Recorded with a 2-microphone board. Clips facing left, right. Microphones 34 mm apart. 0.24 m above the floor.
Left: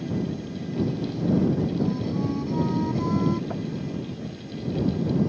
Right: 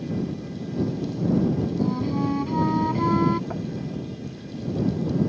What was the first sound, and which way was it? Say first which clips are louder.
A flute: right 2 dB; 35° right (ahead or behind).